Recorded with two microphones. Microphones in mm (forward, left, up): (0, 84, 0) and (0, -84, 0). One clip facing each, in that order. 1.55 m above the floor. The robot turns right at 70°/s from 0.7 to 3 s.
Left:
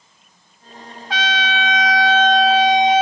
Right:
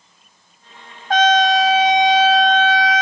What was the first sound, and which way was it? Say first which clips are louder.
A trumpet: right 9 dB; 90° right.